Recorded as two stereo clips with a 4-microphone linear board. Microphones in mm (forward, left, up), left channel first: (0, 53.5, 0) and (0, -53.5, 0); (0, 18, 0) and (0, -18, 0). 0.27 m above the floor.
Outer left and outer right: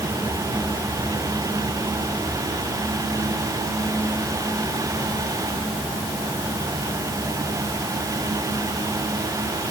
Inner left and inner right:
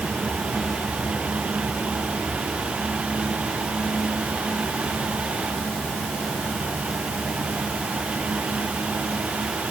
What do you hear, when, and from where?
Only background noise.